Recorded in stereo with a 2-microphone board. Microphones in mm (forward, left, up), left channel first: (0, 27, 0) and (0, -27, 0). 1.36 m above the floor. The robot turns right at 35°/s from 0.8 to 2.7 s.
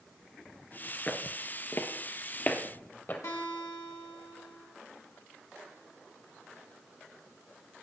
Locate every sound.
1.1 s footsteps: 30° left (ahead or behind), 1.4 m; by 3.1 s 40° left (ahead or behind), 2.5 m
3.2 s a guitar: 70° left (ahead or behind), 3 m